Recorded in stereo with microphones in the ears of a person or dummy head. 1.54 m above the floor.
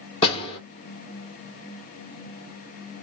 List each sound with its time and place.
0.2 s a door slam: 35° left (ahead or behind), 1.4 m